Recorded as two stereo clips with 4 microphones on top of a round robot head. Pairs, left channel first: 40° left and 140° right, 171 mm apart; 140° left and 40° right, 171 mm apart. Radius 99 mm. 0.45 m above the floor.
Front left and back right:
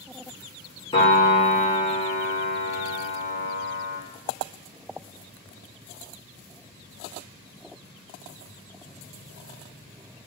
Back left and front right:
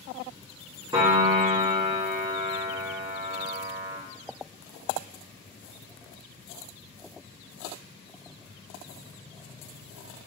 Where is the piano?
10° left, 1.5 m.